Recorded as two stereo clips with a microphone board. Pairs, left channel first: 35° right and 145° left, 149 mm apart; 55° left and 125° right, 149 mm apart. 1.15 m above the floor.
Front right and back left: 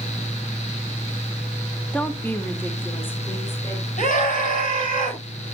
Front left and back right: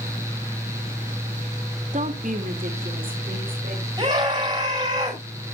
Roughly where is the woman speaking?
Behind right.